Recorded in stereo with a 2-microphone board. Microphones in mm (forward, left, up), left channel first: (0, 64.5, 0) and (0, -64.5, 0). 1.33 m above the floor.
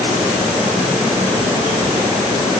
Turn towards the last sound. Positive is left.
No sound to turn to.